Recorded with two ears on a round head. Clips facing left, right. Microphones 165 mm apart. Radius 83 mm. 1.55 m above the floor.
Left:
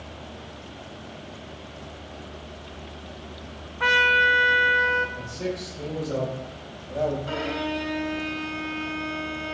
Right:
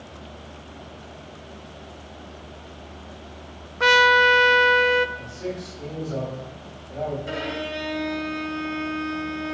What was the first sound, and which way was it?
A trumpet, 50° right (ahead or behind).